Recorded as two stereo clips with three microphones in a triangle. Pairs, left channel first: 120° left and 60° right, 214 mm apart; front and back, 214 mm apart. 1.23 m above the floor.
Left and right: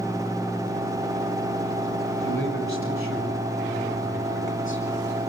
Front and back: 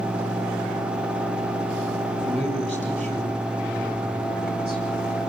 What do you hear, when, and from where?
2.2 s a man speaking: 120° left, 8.5 m; by 4.8 s 140° left, 8.5 m